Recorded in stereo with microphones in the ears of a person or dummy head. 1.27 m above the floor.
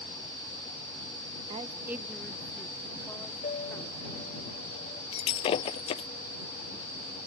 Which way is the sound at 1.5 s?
35° right (ahead or behind).